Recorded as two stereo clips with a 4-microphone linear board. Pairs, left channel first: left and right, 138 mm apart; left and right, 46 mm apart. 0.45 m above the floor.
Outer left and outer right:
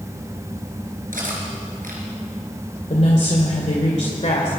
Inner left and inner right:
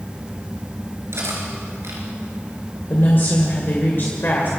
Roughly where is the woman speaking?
Left.